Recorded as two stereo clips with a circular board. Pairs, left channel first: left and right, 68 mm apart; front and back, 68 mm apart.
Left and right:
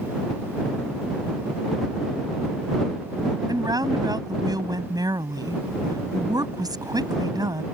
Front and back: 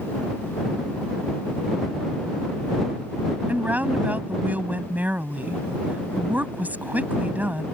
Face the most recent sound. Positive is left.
turn(degrees=-115)